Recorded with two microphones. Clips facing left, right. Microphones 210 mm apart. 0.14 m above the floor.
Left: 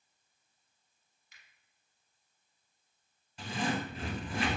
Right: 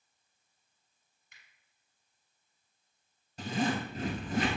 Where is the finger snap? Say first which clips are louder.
Right 1 dB; 60° right (ahead or behind), 2.5 m.